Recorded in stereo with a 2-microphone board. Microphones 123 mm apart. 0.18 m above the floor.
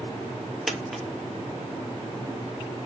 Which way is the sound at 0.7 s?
Centre (ahead or behind).